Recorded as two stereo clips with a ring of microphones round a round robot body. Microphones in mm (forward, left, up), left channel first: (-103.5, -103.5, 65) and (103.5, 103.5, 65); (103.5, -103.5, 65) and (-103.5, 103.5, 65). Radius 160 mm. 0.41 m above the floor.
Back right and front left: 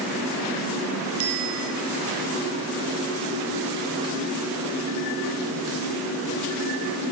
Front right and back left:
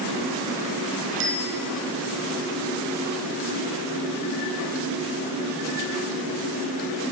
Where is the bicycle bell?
85° left, 5.5 m.